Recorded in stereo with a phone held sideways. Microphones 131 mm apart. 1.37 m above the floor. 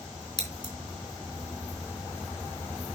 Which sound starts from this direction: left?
Scissors, at 0.4 s.